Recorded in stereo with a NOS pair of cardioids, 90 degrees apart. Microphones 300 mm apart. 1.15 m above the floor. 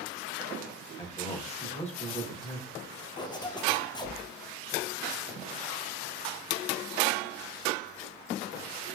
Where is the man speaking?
20° left, 1.1 m.